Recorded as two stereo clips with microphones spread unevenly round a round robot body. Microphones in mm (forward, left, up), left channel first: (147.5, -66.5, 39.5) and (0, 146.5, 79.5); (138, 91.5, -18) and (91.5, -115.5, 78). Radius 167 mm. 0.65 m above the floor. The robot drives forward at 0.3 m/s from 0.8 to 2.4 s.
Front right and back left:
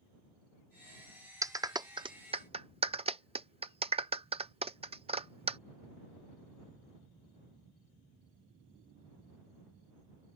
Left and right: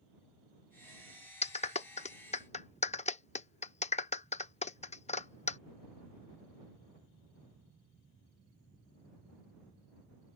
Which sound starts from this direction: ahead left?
A clap, at 1.4 s.